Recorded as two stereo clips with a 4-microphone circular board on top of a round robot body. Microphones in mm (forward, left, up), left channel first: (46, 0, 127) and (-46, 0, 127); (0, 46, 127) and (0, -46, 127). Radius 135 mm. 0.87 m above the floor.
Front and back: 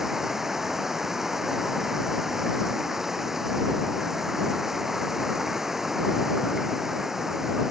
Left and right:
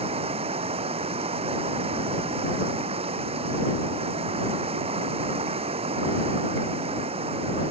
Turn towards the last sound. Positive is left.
turn(degrees=-95)